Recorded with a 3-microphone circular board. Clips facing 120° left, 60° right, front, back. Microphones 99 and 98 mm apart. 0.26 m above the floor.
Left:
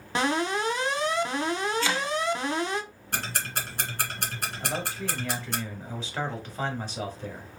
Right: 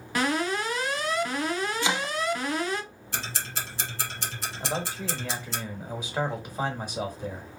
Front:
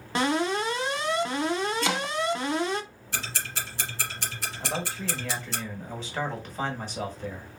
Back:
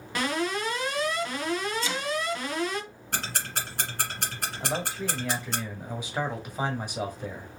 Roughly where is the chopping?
Ahead.